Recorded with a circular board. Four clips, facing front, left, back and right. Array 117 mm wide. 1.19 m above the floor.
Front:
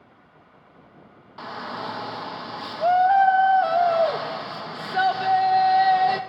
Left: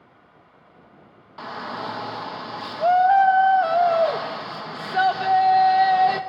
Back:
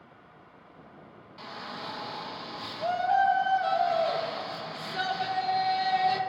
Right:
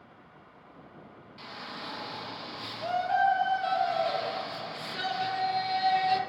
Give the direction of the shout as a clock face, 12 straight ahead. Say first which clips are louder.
Left 11 dB, front 8 dB; 10 o'clock.